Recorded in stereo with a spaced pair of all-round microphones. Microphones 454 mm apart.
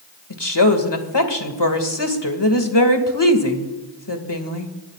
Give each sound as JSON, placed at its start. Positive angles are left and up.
{"t": 0.3, "sound": "a woman speaking", "side_deg": 65, "distance_m": 2.0}